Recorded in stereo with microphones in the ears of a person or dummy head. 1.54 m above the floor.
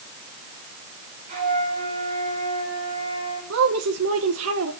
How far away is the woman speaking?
About 1.3 m.